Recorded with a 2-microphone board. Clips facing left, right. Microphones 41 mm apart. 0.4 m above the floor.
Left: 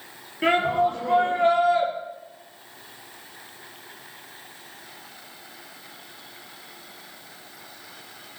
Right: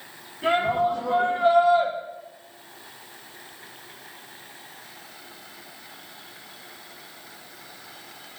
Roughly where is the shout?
Left.